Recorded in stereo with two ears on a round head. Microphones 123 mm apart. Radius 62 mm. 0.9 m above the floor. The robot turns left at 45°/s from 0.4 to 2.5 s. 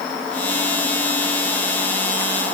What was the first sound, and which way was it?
Only background noise.